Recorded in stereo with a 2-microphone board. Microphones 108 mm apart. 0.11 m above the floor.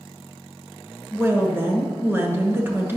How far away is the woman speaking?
About 1.2 m.